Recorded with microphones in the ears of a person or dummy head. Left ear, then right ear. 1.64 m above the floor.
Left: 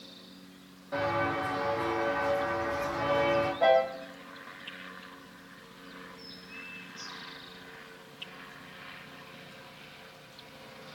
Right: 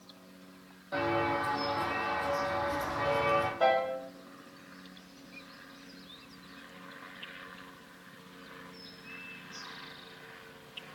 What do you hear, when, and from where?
0.9 s footsteps: 10° right (ahead or behind), 3 m; by 3.5 s 60° right (ahead or behind), 3 m
3.6 s a piano: 65° right (ahead or behind), 4 m